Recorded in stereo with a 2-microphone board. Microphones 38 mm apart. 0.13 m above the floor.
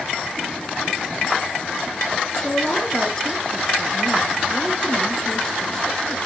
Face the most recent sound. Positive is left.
turn(degrees=15)  # may be behind; listen again after turning